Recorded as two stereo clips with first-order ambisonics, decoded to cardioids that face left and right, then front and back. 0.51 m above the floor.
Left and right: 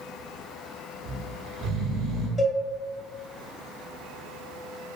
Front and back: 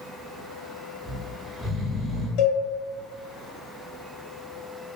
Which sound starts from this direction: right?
Snoring, at 1.1 s.